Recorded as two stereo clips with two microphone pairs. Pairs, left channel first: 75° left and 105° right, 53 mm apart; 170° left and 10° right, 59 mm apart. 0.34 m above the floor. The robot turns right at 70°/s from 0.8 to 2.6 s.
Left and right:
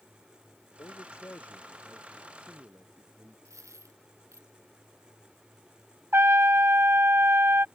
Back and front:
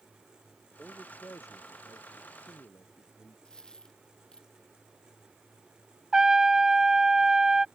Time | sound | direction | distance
0.8 | a man speaking | 85° left | ?
3.5 | a dropped coin | 115° right | ?
6.1 | a trumpet | 90° right | ?